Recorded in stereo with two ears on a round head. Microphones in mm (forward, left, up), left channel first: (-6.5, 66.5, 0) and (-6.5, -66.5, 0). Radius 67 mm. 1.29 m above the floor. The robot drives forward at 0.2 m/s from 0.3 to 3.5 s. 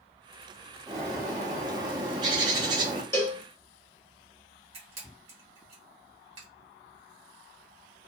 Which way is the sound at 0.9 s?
25° right (ahead or behind).